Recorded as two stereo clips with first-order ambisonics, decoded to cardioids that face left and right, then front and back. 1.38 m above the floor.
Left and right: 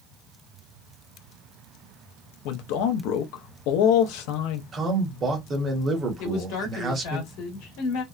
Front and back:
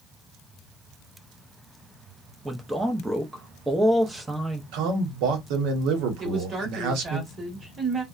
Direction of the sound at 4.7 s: 160° right.